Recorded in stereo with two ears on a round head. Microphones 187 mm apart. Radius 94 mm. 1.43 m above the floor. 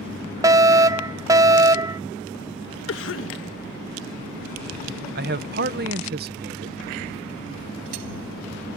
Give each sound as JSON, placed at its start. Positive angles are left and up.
{"t": 0.4, "sound": "a fire alarm", "side_deg": -15}
{"t": 2.9, "sound": "a cough", "side_deg": 65}
{"t": 5.2, "sound": "a man speaking", "side_deg": -50}